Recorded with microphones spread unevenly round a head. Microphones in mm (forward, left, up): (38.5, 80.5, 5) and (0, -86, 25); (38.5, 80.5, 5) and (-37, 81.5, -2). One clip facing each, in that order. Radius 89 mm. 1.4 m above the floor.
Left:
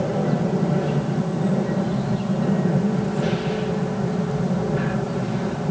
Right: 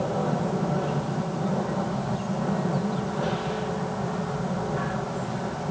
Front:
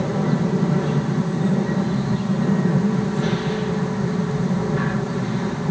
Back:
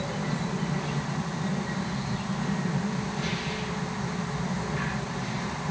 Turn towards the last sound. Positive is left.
turn(degrees=25)